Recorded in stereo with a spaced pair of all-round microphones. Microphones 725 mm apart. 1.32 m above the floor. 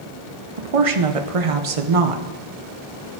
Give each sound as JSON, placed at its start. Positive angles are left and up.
{"t": 0.6, "sound": "a woman speaking", "side_deg": -50, "distance_m": 0.7}